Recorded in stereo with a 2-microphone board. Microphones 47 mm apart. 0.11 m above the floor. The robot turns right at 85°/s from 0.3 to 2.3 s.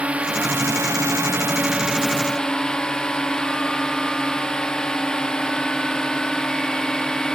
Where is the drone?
150° right; by 7.3 s 20° left.